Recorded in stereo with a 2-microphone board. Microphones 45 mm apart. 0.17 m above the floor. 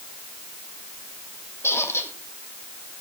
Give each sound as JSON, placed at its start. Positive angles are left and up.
{"t": 1.6, "sound": "a squeak", "side_deg": 70, "distance_m": 1.7}